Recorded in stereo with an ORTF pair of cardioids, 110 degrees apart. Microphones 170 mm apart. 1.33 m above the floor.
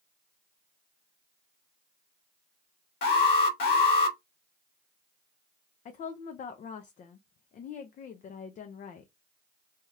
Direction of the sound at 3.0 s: 60° left.